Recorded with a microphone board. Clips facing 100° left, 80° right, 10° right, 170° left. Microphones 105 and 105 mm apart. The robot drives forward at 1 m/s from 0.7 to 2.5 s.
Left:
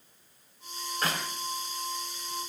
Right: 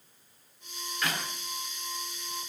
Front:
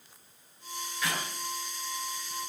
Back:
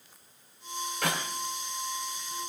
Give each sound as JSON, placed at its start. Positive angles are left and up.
{"t": 1.0, "sound": "a clap", "azimuth_deg": 150, "distance_m": 3.5}